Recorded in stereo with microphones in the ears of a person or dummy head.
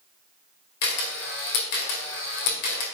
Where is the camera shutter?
60° left (ahead or behind), 2.0 m.